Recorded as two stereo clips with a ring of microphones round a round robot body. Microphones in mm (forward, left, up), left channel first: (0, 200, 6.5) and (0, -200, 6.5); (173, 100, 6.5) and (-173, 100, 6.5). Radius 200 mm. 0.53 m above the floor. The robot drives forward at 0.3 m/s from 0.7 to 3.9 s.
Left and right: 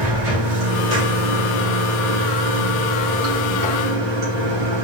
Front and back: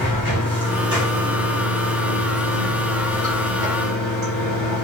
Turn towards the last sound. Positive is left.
turn(degrees=-135)